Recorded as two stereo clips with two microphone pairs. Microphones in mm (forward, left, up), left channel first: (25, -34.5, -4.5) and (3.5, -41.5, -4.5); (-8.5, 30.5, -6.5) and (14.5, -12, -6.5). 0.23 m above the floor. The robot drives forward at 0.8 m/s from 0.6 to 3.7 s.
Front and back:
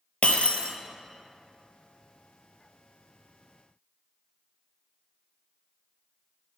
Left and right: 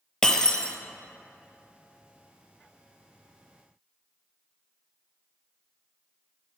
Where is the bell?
I don't hear a bell.